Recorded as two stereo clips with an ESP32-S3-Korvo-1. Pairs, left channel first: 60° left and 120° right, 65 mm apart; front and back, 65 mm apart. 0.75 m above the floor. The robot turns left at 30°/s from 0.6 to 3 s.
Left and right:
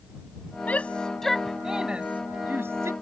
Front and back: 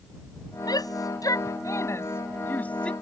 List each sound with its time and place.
0.7 s a shout: 5° right; by 2.9 s 75° right